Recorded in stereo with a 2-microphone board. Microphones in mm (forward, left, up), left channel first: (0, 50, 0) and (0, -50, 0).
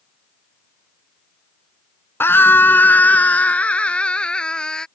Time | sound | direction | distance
2.2 | a scream | 25° left (ahead or behind) | ?